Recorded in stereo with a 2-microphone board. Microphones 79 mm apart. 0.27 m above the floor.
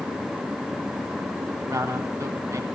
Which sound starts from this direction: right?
A man speaking, at 1.6 s.